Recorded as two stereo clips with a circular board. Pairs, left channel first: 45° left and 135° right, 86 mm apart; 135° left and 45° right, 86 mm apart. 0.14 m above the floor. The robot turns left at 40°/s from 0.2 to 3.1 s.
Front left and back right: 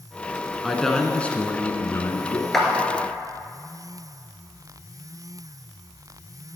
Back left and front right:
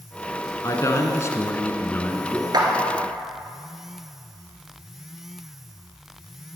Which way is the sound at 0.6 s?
135° left.